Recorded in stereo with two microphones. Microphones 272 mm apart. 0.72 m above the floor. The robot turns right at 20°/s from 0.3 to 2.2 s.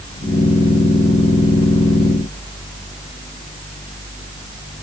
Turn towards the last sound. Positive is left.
No sound to turn to.